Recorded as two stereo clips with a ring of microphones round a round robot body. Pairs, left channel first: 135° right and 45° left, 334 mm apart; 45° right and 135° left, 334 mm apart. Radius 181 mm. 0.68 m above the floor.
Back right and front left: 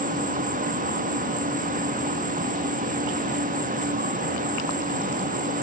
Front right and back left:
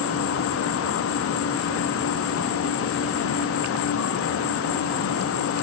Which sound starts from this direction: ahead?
An insect, at 0.0 s.